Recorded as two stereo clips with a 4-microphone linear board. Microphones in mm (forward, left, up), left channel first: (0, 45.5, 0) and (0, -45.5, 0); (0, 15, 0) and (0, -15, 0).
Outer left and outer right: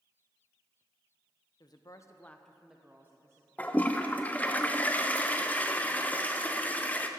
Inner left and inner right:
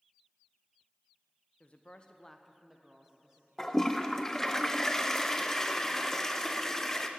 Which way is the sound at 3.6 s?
15° left (ahead or behind).